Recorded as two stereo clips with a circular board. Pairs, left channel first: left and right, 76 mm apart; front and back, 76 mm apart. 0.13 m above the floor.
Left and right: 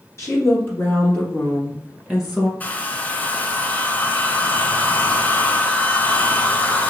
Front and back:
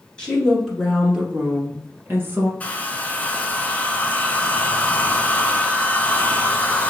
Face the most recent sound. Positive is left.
turn(degrees=50)